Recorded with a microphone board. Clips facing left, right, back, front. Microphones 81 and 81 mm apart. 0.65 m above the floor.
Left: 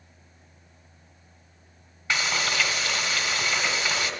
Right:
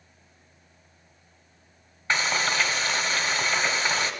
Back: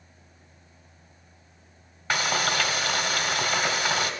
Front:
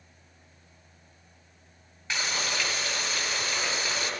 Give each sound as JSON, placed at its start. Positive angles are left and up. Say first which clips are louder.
{"t": 2.1, "sound": "frying", "louder": "right 2 dB, back 6 dB", "azimuth_deg": -145, "distance_m": 1.4}